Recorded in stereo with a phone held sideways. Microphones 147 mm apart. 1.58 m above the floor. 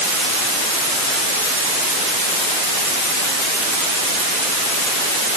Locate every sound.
Only background noise.